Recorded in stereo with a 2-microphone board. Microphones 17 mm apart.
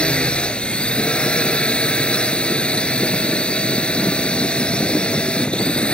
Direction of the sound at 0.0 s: 70° left (ahead or behind).